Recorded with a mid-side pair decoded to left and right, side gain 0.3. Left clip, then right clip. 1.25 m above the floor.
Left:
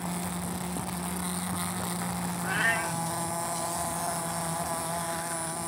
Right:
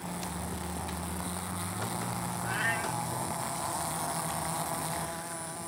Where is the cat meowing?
45° left.